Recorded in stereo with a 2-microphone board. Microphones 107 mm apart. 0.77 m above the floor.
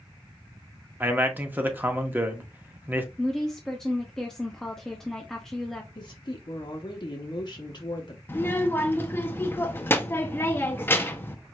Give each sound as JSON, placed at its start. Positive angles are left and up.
{"t": 1.0, "sound": "a man speaking", "side_deg": -20, "distance_m": 0.9}
{"t": 3.2, "sound": "a woman speaking", "side_deg": 5, "distance_m": 0.7}
{"t": 6.0, "sound": "a woman speaking", "side_deg": 45, "distance_m": 0.9}
{"t": 8.3, "sound": "a child speaking", "side_deg": 20, "distance_m": 0.9}